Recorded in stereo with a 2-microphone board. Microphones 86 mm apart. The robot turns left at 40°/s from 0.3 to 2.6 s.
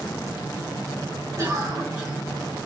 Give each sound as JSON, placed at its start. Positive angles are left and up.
{"t": 1.4, "sound": "a cough", "azimuth_deg": -145, "distance_m": 2.5}